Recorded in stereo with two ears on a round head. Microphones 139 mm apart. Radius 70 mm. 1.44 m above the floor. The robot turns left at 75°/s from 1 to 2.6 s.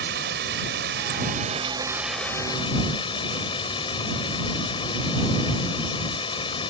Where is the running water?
95° right; by 6.7 s 145° left.